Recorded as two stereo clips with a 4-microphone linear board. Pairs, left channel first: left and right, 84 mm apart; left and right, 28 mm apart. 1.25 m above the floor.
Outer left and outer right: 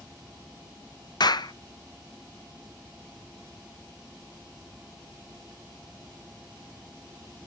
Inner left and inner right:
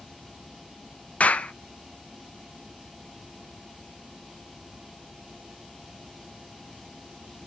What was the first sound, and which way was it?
A clap, 60° left (ahead or behind).